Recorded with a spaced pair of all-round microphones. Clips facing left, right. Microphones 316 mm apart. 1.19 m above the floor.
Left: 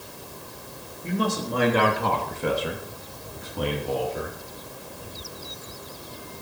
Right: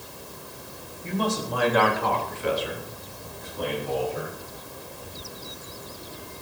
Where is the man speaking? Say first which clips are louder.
Left 1 dB; 15° left (ahead or behind), 3 m; by 4.4 s 65° left (ahead or behind), 4 m.